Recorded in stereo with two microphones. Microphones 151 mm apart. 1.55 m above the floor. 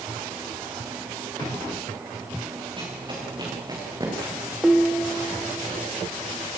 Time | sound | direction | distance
2.8 | running footsteps | 35° right (ahead or behind) | 7 m
4.6 | dishes clattering | centre (ahead or behind) | 2 m